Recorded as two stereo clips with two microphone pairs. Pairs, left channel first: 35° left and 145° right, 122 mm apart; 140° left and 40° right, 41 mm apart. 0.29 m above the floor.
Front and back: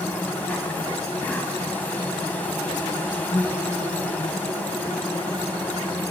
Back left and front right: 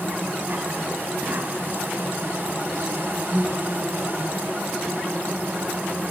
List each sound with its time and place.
0.0 s an insect: 40° right, 1.0 m